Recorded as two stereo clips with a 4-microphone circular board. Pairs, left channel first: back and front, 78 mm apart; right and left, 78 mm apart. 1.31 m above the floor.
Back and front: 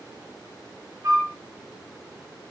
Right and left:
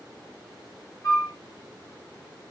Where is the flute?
45° right, 1.1 m.